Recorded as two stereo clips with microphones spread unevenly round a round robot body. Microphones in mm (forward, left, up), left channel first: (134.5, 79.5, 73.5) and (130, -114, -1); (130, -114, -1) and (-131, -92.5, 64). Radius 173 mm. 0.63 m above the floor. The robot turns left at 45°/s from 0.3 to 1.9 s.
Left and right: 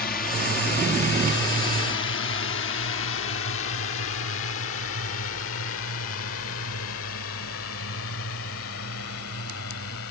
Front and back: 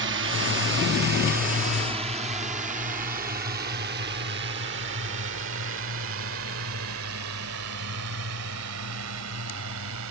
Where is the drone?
140° left; by 10.1 s 130° left.